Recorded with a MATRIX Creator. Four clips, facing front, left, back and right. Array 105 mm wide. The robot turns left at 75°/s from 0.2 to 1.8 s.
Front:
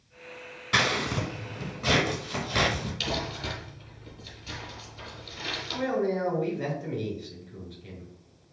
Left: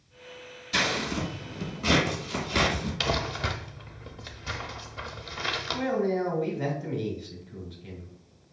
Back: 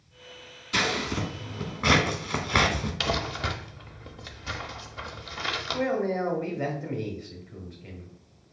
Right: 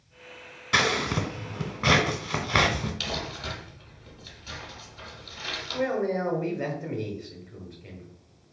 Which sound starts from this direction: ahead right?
Scissors, at 0.7 s.